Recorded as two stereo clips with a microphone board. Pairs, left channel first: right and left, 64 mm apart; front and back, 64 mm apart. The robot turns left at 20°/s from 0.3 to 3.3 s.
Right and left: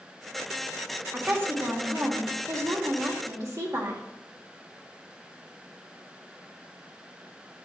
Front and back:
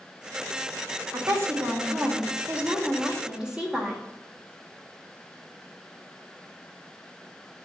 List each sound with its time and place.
1.1 s a woman speaking: 145° left, 1.7 m; by 4.0 s 100° left, 1.7 m